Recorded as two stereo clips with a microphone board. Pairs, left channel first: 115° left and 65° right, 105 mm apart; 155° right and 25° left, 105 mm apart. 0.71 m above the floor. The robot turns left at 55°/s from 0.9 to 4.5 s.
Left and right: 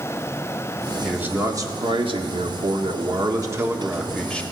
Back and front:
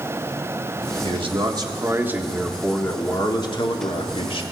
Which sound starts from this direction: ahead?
A man speaking, at 1.0 s.